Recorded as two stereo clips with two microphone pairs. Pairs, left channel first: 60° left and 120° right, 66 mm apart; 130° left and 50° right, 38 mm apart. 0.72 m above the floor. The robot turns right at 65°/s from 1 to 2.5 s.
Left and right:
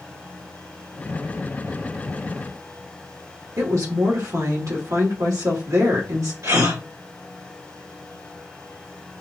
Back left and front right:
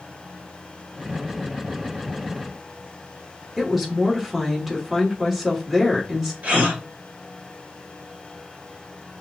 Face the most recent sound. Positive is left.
turn(degrees=-95)